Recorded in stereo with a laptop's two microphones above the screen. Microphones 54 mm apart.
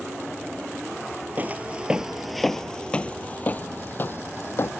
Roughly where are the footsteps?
Right.